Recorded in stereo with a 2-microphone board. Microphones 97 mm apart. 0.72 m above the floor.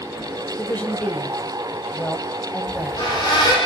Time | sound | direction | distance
0.6 | a woman speaking | 15° left (ahead or behind) | 3 m
2.7 | a squeak | 50° left (ahead or behind) | 9.5 m